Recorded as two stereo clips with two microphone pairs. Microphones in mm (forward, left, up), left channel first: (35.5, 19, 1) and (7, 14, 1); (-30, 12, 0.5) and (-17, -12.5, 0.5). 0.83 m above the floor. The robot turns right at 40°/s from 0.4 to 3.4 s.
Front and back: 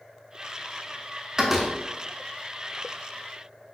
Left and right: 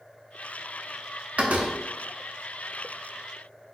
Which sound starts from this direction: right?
A door slam, at 1.4 s.